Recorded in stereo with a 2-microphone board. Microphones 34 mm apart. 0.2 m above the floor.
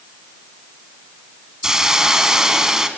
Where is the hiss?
15° right (ahead or behind), 1.6 m.